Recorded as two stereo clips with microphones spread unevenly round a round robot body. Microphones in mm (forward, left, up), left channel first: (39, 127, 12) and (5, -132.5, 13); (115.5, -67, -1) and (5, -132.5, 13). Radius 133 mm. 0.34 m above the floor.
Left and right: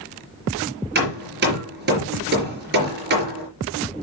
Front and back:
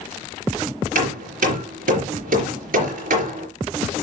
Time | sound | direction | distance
0.9 | hammering | 150° right | 4 m